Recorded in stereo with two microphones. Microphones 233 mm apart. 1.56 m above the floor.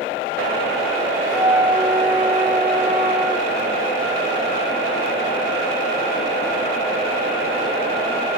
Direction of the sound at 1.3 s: 5° right (ahead or behind).